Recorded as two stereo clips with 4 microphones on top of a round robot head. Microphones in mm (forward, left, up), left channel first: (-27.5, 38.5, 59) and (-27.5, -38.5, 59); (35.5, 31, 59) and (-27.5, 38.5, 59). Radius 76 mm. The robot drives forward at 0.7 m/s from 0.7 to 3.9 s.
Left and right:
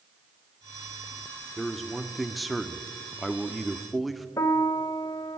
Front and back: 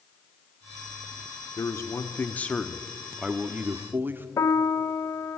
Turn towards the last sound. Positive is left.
turn(degrees=35)